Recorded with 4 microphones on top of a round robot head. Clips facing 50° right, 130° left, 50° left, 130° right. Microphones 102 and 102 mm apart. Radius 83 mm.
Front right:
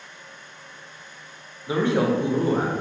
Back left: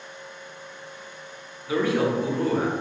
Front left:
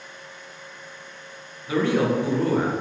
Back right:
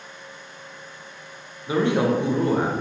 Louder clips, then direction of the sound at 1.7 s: Front right 1 dB, back right 1 dB; 85° right.